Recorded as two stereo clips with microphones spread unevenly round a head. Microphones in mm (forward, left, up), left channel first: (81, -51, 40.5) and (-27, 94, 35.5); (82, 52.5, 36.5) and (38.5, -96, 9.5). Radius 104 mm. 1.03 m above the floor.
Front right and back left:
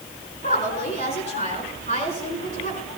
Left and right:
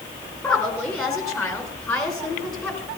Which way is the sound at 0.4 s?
Straight ahead.